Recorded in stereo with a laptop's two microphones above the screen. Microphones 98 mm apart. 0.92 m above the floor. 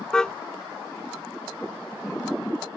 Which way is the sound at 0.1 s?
10° left (ahead or behind).